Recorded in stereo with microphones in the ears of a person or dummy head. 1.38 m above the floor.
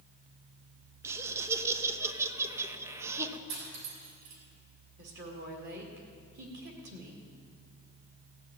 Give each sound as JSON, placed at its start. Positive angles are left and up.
{"t": 1.0, "sound": "laughter", "side_deg": -15, "distance_m": 1.0}
{"t": 3.5, "sound": "cutlery clinking", "side_deg": -85, "distance_m": 6.5}
{"t": 5.0, "sound": "a woman speaking", "side_deg": -65, "distance_m": 2.0}